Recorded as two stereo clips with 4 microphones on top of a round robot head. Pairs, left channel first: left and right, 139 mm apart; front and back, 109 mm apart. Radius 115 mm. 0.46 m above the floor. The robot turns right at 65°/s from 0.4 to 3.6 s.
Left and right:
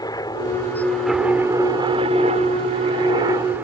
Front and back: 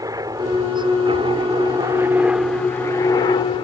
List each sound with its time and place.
0.0 s a helicopter: 140° left; by 3.6 s 15° right